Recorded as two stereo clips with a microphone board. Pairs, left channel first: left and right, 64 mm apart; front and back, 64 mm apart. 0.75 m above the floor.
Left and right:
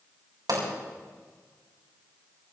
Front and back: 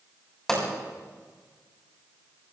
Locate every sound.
0.5 s a pop: 80° right, 6.5 m